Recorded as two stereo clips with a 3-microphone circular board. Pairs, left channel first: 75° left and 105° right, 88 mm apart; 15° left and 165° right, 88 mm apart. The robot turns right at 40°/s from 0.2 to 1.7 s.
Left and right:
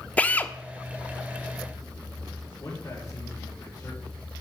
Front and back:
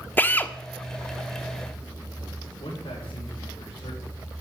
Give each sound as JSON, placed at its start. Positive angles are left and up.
{"t": 0.2, "sound": "a drill", "azimuth_deg": 35, "distance_m": 0.8}
{"t": 2.6, "sound": "a man speaking", "azimuth_deg": 20, "distance_m": 5.0}